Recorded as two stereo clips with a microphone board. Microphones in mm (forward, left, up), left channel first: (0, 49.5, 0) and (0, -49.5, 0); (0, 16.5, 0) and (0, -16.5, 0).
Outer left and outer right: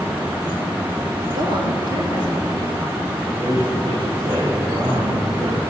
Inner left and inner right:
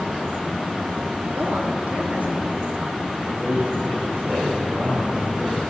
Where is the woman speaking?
55° right (ahead or behind), 3 m.